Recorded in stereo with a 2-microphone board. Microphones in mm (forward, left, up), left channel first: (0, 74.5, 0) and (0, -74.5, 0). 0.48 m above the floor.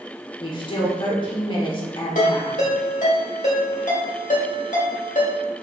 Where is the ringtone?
60° left (ahead or behind), 1.7 m.